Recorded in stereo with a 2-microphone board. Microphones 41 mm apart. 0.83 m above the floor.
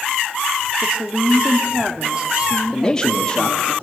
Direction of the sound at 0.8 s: 30° right (ahead or behind).